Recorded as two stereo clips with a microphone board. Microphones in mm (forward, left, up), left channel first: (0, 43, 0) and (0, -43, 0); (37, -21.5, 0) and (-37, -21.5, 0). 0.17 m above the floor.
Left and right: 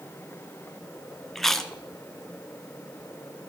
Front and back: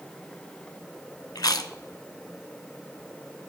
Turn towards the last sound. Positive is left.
turn(degrees=5)